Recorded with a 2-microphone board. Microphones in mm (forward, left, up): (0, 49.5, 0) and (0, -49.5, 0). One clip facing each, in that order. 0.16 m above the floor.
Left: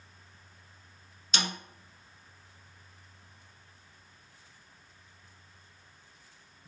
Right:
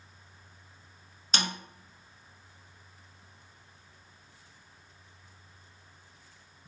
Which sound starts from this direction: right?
A snare drum, at 1.3 s.